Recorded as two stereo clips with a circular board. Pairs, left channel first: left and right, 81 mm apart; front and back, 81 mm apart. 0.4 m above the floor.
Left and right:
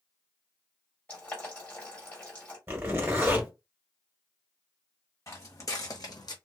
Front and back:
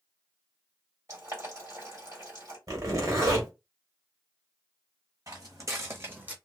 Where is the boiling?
155° left, 1.9 m.